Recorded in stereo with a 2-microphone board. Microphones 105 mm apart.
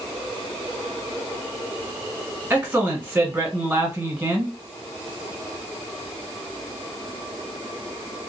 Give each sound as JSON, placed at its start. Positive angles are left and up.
{"t": 2.5, "sound": "a man speaking", "side_deg": -15, "distance_m": 1.3}